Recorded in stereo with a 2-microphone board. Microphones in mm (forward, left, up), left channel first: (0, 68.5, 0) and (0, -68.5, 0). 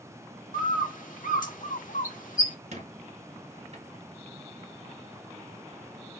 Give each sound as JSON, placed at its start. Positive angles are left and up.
{"t": 0.5, "sound": "a bird", "side_deg": 75, "distance_m": 1.0}
{"t": 2.7, "sound": "a squeak", "side_deg": -55, "distance_m": 1.1}